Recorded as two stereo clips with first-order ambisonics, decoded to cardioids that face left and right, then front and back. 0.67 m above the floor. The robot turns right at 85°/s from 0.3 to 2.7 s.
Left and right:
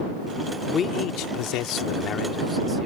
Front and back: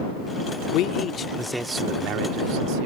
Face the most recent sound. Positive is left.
turn(degrees=-165)